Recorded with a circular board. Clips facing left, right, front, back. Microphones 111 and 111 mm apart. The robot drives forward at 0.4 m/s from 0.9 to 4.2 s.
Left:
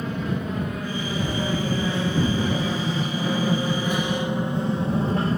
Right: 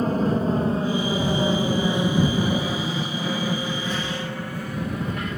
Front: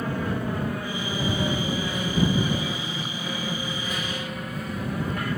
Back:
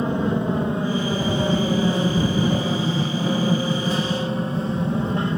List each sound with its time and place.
0.0 s an aircraft: 120° right; by 5.4 s 125° left